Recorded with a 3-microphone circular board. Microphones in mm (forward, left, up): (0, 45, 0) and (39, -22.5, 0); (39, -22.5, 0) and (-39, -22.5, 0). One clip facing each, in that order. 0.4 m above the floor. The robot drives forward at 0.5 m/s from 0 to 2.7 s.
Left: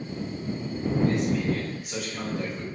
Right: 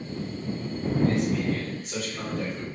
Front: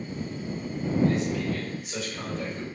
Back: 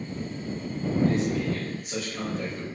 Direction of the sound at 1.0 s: 155° right.